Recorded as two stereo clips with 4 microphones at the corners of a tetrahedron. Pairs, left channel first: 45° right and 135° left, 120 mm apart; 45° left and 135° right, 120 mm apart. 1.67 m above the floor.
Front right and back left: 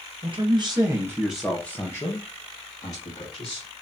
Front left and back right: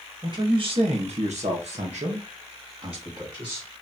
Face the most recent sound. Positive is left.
turn(degrees=-75)